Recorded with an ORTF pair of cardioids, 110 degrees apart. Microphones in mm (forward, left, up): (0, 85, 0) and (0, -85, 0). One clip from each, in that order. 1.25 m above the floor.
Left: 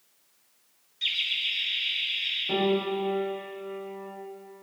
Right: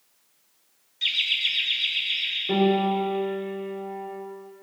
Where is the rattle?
No rattle in this recording.